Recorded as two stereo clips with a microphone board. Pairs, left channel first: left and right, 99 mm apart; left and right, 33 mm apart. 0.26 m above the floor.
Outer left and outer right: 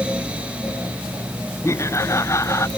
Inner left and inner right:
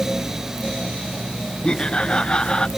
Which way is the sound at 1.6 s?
30° left (ahead or behind).